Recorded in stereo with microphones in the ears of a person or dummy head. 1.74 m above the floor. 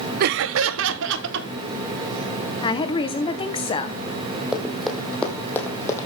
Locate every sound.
0.2 s laughter: 50° right (ahead or behind), 0.6 m; by 1.5 s 65° right (ahead or behind), 2 m
2.6 s a woman speaking: 30° left (ahead or behind), 1.5 m
4.5 s running footsteps: 5° right (ahead or behind), 3.5 m; by 6.0 s 20° left (ahead or behind), 3.5 m